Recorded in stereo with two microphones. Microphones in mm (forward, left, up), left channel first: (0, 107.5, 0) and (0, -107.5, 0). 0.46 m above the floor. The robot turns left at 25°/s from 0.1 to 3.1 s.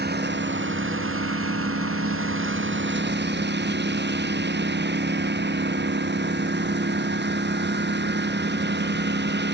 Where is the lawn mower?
50° right; by 9.6 s 125° right.